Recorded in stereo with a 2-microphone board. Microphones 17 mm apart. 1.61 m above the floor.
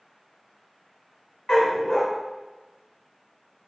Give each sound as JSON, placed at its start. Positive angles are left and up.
{"t": 1.5, "sound": "a dog barking", "side_deg": 50, "distance_m": 2.5}